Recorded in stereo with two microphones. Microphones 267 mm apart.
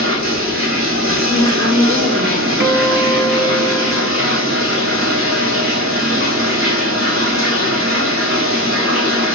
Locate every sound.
0.0 s running water: 55° right (ahead or behind), 3 m
1.3 s a woman speaking: 40° right (ahead or behind), 2 m
2.6 s a guitar: 45° right (ahead or behind), 0.6 m